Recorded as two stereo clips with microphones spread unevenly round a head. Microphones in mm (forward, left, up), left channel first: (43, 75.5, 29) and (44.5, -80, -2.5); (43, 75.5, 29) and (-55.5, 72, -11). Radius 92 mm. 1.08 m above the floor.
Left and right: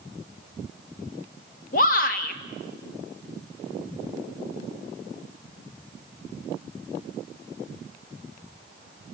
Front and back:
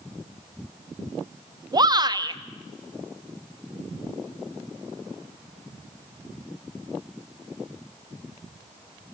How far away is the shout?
About 1.7 m.